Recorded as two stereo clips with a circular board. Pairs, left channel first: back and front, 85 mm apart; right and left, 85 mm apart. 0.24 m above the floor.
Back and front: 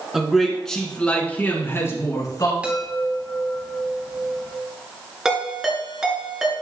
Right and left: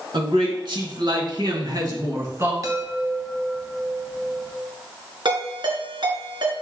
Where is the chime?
70° left, 1.9 m.